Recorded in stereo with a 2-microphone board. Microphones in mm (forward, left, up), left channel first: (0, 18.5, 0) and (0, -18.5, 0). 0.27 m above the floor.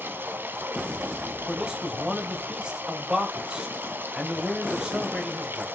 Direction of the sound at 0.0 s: 65° right (ahead or behind).